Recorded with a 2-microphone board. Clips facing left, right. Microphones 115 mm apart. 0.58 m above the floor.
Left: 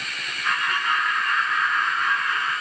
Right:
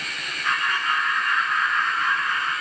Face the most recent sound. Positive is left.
turn(degrees=10)  # may be behind; listen again after turning